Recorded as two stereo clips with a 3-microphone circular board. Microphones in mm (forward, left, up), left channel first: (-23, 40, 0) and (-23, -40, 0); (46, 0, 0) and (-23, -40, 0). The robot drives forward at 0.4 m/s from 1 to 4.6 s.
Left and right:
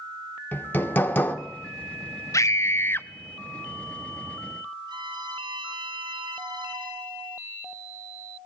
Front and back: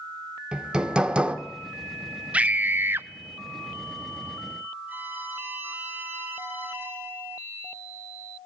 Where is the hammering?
140° left, 1.3 m; by 1.4 s 145° left, 1.3 m.